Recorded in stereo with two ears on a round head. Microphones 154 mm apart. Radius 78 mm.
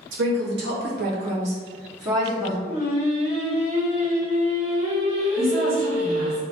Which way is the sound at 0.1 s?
75° right (ahead or behind).